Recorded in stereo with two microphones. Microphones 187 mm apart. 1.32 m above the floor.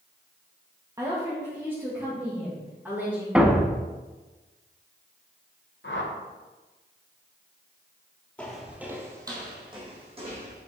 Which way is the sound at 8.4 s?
5° left (ahead or behind).